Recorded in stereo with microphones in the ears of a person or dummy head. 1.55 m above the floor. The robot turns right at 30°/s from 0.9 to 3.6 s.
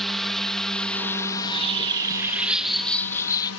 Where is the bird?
35° right; by 3.5 s 25° left.